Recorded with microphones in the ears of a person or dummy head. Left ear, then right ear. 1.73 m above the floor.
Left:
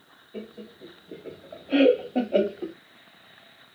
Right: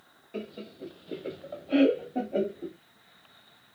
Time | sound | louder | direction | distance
0.3 | laughter | right 1 dB | 60° right (ahead or behind) | 0.8 m